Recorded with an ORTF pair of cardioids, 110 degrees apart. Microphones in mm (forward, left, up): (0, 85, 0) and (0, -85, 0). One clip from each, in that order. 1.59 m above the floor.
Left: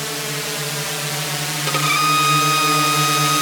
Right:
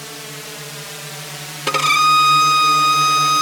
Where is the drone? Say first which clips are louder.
Left 7 dB; 45° left; by 3.4 s 55° left.